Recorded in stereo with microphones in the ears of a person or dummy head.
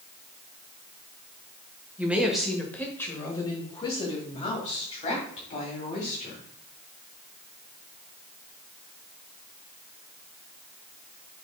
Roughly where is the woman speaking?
Centre.